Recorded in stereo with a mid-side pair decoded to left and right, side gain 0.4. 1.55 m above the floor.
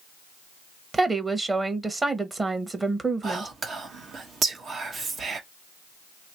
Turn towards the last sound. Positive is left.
turn(degrees=-60)